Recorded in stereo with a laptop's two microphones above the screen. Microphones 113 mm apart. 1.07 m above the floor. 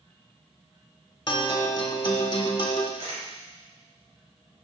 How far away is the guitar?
About 1.2 m.